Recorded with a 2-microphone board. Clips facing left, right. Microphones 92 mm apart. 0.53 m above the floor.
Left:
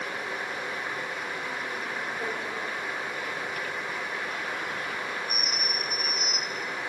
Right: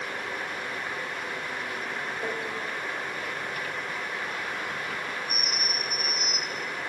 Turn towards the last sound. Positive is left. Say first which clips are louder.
# right 2 dB
turn(degrees=35)  # may be behind; listen again after turning